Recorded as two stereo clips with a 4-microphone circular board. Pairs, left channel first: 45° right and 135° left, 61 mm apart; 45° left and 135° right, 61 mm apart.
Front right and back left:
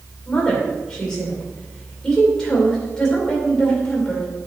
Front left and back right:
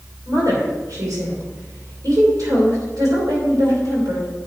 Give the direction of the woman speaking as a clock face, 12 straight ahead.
4 o'clock.